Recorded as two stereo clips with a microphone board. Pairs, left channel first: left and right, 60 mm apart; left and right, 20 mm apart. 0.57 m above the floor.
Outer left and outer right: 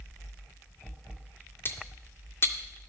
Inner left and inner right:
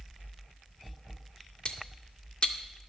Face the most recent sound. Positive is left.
turn(degrees=40)  # may be behind; listen again after turning